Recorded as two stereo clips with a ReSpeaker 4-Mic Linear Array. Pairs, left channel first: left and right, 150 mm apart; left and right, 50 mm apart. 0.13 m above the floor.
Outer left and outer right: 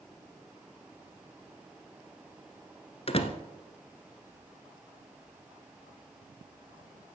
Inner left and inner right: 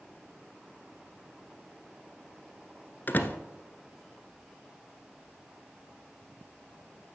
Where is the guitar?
No guitar in this recording.